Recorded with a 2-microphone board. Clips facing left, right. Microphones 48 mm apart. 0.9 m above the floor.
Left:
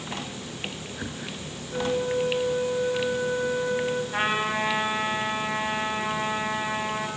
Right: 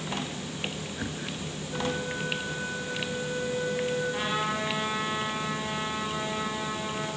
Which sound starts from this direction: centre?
A flute, at 1.7 s.